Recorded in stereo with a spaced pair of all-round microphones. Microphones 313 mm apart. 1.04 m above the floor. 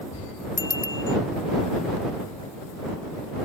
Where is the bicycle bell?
80° left.